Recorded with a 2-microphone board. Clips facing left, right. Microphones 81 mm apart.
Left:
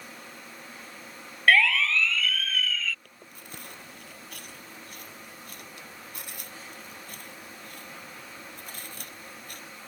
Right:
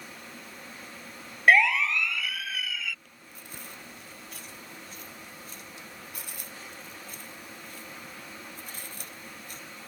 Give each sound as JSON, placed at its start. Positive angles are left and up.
{"t": 1.5, "sound": "a siren", "side_deg": -20}
{"t": 3.0, "sound": "chewing", "side_deg": 60}